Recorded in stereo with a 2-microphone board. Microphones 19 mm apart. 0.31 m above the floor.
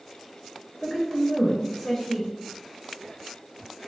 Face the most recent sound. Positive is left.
turn(degrees=20)  # may be behind; listen again after turning